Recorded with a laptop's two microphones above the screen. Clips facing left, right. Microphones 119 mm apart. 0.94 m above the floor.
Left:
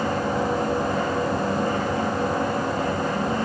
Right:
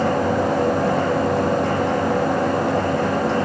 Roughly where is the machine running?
Right.